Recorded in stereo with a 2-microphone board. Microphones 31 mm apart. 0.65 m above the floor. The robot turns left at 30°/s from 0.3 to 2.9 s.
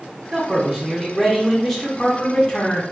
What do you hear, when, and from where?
0.3 s a man speaking: 155° right, 0.7 m; by 2.8 s 130° left, 0.7 m